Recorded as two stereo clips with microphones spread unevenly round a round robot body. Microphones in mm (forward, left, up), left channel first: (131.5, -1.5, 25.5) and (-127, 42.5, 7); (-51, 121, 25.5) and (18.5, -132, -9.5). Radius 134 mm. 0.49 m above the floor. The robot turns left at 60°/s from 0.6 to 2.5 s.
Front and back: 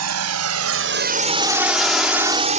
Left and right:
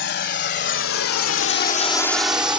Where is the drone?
155° left; by 2.6 s 150° right.